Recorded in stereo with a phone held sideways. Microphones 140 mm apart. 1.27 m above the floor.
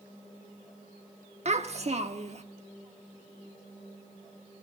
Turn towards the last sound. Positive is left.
turn(degrees=-50)  # may be behind; listen again after turning